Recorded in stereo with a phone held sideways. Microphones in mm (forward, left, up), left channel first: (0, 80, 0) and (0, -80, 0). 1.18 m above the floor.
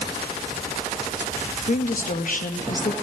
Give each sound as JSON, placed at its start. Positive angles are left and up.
{"t": 1.7, "sound": "a woman speaking", "side_deg": 60, "distance_m": 2.0}